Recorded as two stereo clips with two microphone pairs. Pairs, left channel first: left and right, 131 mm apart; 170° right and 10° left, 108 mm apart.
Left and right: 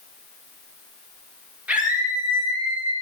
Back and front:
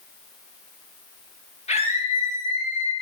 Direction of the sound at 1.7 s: 170° right.